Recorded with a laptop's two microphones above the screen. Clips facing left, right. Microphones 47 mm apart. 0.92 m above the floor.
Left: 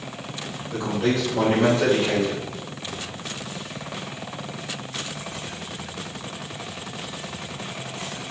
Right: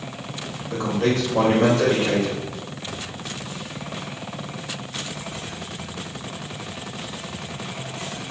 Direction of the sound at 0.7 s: 55° right (ahead or behind).